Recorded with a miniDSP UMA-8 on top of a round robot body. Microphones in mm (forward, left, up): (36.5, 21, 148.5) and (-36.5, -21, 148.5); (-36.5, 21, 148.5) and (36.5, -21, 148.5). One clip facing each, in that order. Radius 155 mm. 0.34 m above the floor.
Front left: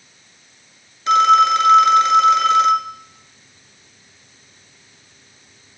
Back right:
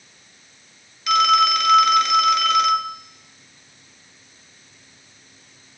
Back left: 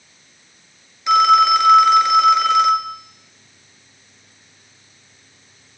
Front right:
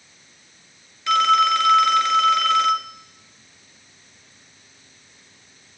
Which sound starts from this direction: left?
A phone ringing, at 1.1 s.